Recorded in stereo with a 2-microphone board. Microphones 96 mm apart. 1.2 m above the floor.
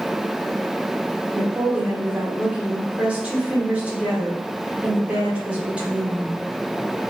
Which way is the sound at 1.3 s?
15° right (ahead or behind).